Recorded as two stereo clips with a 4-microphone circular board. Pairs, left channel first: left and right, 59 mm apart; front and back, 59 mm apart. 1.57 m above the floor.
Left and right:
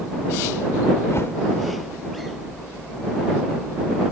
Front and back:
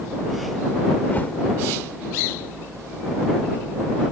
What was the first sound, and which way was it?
A whoosh, 55° left.